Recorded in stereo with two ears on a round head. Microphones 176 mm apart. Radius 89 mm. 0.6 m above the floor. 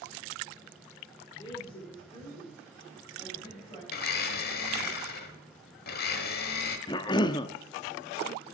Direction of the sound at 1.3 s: 20° left (ahead or behind).